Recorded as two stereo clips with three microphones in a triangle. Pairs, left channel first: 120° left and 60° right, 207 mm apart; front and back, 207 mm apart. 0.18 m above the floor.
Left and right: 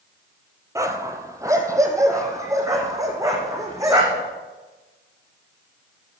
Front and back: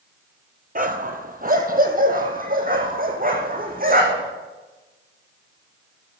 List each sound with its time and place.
0.8 s a dog barking: 135° right, 1.2 m